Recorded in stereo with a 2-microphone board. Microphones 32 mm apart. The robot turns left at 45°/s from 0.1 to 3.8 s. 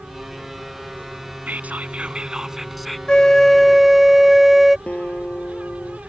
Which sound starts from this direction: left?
A guitar, at 4.9 s.